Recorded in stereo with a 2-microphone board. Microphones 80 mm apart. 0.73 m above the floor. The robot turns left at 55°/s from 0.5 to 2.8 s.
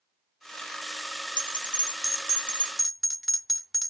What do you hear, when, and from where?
1.4 s a bell: 75° left (ahead or behind), 0.8 m; by 3.9 s centre (ahead or behind), 0.8 m